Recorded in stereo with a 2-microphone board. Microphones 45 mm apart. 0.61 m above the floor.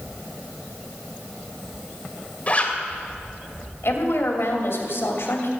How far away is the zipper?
About 2 m.